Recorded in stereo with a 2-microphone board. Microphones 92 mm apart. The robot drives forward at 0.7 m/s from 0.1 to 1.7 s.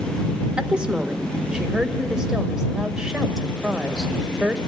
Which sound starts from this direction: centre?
A woman speaking, at 0.6 s.